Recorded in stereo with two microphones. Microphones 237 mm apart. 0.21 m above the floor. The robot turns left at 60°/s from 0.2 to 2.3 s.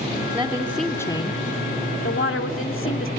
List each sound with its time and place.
0.3 s a woman speaking: 160° right, 1.2 m; by 3.1 s 85° left, 1.2 m